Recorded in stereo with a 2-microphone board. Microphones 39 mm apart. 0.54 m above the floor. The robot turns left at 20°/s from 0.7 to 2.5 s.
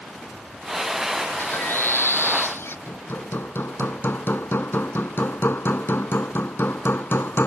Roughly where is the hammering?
Left.